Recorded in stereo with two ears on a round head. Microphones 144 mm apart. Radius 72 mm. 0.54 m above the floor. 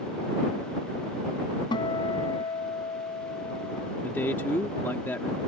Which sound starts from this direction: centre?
A man speaking, at 4.0 s.